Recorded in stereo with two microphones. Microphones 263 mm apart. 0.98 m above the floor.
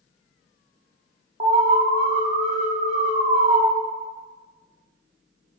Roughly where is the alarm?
Right.